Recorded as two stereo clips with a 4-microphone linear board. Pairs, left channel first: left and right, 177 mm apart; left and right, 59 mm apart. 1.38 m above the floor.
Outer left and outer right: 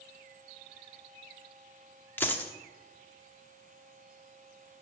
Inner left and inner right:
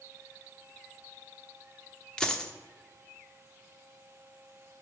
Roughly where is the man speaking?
I don't hear a man speaking.